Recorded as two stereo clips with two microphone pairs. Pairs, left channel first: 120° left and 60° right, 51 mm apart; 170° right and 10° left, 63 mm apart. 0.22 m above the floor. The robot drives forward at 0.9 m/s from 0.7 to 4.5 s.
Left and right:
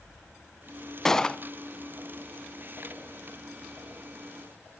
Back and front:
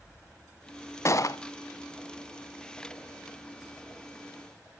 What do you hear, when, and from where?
1.1 s a gunshot: 160° right, 0.7 m; by 1.4 s 170° right, 0.9 m